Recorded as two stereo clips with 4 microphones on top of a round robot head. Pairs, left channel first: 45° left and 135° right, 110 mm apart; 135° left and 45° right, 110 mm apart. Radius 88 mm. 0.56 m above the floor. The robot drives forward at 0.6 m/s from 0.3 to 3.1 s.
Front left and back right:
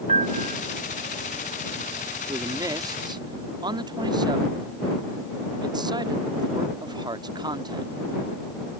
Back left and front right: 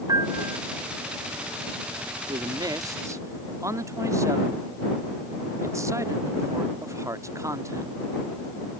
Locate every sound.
0.1 s a piano: 105° right; by 0.6 s 115° right
2.3 s a man speaking: 80° right; by 7.9 s 100° right